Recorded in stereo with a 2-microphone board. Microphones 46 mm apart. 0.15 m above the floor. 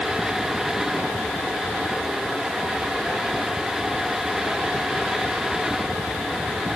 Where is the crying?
I don't hear crying.